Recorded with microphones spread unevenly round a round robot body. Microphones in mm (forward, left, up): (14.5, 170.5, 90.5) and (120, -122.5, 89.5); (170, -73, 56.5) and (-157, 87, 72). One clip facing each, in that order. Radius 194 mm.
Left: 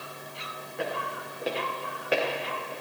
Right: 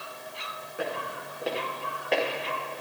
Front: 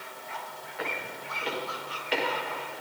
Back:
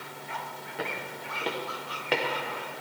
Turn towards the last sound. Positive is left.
turn(degrees=-170)